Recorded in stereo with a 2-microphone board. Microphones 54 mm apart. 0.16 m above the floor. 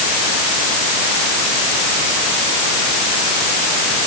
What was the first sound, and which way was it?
Only background noise.